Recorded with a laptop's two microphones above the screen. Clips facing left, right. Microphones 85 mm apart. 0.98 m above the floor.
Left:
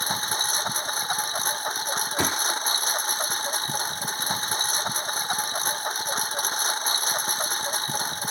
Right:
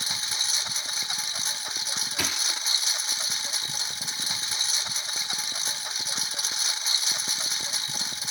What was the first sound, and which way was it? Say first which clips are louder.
A lawn mower: left 8 dB; 40° left (ahead or behind).